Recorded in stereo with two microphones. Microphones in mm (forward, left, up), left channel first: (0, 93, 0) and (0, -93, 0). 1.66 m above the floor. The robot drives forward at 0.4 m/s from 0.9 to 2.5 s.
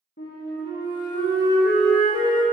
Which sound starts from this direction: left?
A flute, at 0.2 s.